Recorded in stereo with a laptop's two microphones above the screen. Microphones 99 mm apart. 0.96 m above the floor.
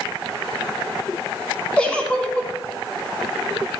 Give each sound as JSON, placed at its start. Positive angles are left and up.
{"t": 1.8, "sound": "a giggle", "side_deg": 10, "distance_m": 3.0}